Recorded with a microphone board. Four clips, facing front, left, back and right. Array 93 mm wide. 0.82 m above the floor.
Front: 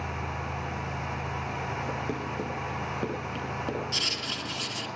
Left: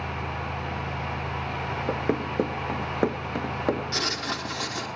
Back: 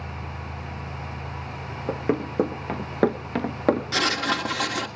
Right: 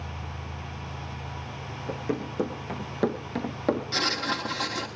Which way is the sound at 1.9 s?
135° left.